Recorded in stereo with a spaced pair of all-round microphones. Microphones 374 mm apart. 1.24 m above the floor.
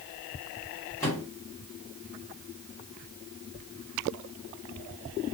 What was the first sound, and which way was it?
A microwave, 10° left (ahead or behind).